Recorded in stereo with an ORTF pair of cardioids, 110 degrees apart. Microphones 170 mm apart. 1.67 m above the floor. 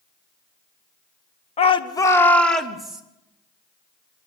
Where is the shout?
40° left, 1.5 m; by 3.0 s 5° right, 3 m.